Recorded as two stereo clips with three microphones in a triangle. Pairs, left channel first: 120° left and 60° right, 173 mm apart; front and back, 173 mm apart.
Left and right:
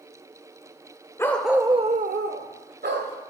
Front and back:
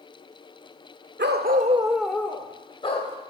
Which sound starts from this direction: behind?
A dog barking, at 1.2 s.